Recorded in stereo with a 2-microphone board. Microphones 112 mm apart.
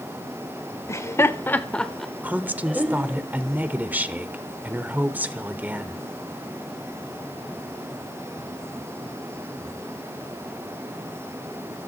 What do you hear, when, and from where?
0.9 s laughter: 25° left (ahead or behind), 1.0 m; by 3.2 s 10° right (ahead or behind), 1.7 m
2.2 s a woman speaking: 15° right (ahead or behind), 1.1 m